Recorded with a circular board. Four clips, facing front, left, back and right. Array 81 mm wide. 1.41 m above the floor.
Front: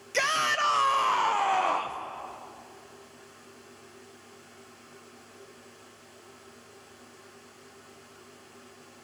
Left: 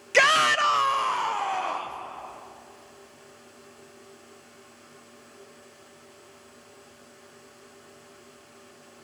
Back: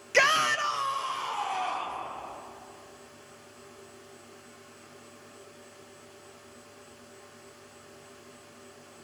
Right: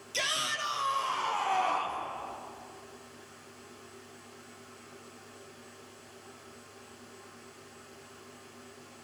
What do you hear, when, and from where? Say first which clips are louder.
0.1 s a shout: left 15 dB, back 3 dB; 110° left, 0.7 m; by 2.0 s 10° left, 1.4 m